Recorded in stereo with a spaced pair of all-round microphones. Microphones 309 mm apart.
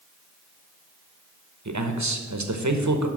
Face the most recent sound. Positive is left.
turn(degrees=-70)  # may be behind; listen again after turning